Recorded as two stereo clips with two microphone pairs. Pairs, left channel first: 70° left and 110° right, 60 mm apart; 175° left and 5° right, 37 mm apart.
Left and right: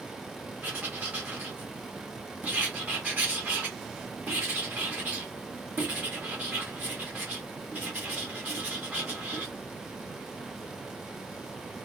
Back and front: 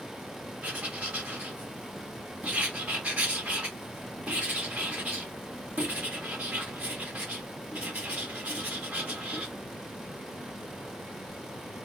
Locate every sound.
0.6 s writing: 50° right, 1.5 m